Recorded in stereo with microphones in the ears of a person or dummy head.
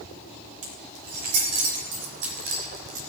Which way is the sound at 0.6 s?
55° right (ahead or behind).